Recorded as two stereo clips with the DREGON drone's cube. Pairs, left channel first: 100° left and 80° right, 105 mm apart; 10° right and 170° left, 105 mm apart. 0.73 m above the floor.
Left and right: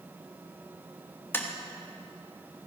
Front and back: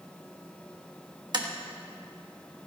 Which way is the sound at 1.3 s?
160° left.